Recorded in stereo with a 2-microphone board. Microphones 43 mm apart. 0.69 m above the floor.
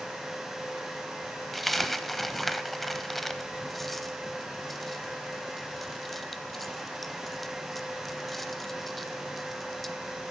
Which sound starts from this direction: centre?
A dropped coin, at 1.5 s.